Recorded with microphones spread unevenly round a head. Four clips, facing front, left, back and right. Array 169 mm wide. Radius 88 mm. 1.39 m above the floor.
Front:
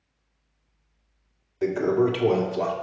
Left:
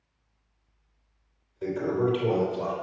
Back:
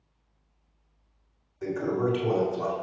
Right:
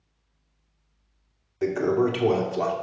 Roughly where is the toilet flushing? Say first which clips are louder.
Right 4 dB, front 6 dB; ahead right.